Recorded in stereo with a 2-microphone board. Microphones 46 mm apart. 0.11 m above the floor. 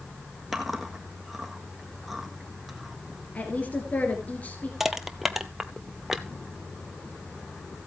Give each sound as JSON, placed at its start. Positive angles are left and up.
{"t": 0.5, "sound": "chewing", "side_deg": -5, "distance_m": 1.5}
{"t": 3.4, "sound": "a woman speaking", "side_deg": 35, "distance_m": 1.9}
{"t": 4.8, "sound": "crushing", "side_deg": -5, "distance_m": 0.8}